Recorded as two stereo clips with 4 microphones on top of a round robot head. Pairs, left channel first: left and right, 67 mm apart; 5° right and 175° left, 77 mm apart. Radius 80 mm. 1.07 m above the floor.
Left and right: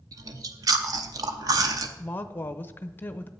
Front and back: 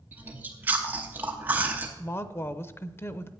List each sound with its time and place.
0.1 s chewing: 110° right, 0.8 m
2.0 s a woman speaking: 40° left, 0.9 m